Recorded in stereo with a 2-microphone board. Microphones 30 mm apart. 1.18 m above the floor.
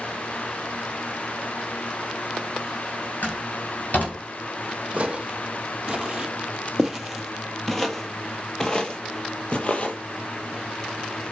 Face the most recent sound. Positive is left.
turn(degrees=45)  # may be behind; listen again after turning